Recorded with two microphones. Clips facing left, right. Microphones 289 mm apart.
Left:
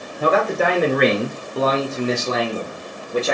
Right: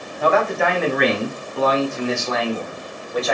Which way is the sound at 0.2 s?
40° left (ahead or behind).